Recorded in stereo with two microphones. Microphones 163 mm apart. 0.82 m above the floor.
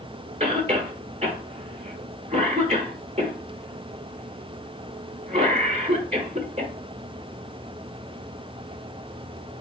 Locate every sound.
0.4 s a cough: 40° right (ahead or behind), 1.2 m